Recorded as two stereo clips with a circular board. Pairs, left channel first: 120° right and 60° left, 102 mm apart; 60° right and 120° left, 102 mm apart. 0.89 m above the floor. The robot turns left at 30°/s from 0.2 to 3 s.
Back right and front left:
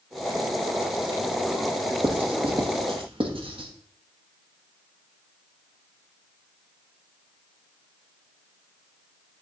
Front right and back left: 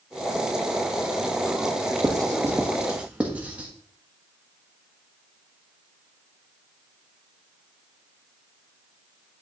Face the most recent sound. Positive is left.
turn(degrees=45)